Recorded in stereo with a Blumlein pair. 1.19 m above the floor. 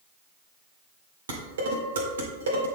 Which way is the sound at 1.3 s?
65° right.